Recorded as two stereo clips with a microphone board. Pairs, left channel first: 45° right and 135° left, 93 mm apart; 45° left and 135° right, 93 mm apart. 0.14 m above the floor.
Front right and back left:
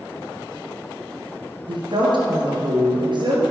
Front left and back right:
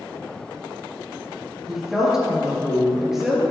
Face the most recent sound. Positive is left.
turn(degrees=140)